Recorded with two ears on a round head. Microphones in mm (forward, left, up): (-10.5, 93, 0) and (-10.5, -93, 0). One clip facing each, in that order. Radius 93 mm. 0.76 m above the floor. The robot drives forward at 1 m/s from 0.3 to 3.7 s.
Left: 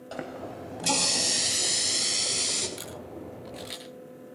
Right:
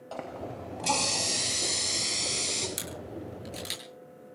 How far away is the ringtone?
I don't hear a ringtone.